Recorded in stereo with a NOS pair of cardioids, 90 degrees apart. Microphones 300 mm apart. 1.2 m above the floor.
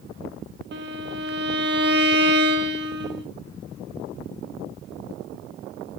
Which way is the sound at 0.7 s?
35° right.